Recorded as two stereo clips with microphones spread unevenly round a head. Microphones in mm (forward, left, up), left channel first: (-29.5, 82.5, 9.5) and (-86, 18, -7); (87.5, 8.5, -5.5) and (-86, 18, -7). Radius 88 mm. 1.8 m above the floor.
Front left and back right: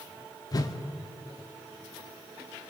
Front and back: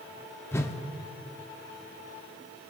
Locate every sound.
0.5 s a whoosh: 70° left, 0.7 m